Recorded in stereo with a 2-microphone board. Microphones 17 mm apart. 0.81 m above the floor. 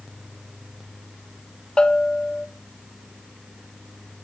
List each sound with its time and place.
1.8 s a bell: 70° left (ahead or behind), 1.7 m